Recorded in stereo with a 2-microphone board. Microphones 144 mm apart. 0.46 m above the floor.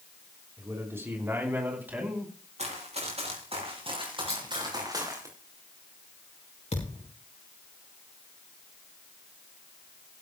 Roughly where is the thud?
Left.